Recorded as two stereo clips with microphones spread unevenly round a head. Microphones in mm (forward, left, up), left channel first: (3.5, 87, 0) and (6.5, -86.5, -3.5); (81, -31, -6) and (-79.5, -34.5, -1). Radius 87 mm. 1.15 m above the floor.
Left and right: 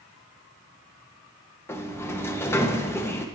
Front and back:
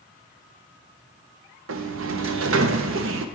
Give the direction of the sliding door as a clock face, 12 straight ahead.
6 o'clock.